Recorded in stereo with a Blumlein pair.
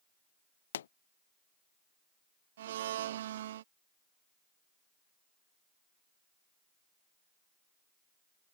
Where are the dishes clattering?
I don't hear dishes clattering.